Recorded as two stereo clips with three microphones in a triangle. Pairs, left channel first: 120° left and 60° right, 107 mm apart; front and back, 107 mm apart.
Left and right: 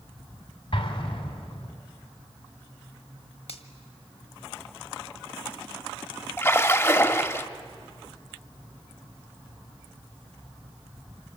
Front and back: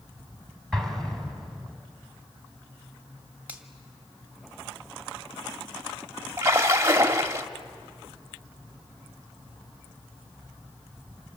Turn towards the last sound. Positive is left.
turn(degrees=160)